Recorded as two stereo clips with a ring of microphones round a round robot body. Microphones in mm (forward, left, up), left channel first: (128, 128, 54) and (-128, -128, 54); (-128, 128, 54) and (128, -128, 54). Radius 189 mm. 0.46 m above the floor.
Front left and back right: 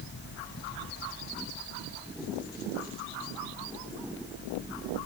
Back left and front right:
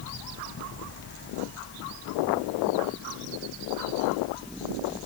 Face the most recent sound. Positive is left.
No sound to turn to.